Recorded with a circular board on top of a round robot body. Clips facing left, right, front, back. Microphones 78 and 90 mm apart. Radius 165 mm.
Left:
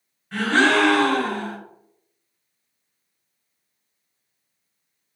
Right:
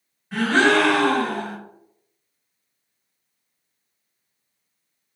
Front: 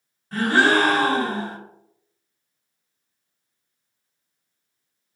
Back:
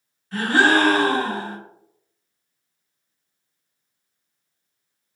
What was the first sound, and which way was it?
A gasp, 10° right.